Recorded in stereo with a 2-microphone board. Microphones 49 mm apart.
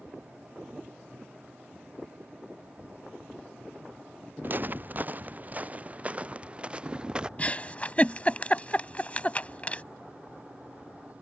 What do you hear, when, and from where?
4.4 s footsteps: 45° right (ahead or behind); by 7.3 s 20° right (ahead or behind)
7.4 s a giggle: 30° left (ahead or behind)